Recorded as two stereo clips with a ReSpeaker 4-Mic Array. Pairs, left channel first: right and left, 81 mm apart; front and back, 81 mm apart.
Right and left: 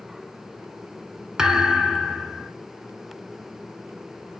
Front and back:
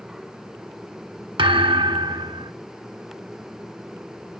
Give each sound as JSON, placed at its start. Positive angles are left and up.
{"t": 1.4, "sound": "a thud", "azimuth_deg": 175, "distance_m": 1.6}